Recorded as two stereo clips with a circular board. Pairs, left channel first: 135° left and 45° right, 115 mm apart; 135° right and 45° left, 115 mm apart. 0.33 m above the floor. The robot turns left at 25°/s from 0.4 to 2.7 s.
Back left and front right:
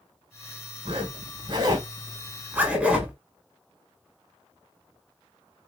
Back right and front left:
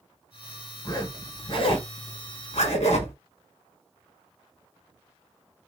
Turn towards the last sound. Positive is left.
turn(degrees=-120)